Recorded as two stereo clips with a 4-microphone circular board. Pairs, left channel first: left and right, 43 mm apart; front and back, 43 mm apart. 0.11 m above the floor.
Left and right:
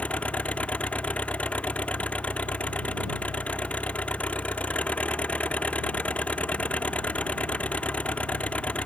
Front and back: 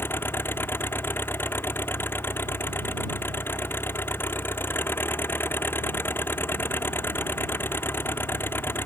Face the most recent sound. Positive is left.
turn(degrees=35)